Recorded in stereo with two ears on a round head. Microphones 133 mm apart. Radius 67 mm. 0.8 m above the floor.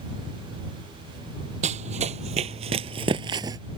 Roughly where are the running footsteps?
Right.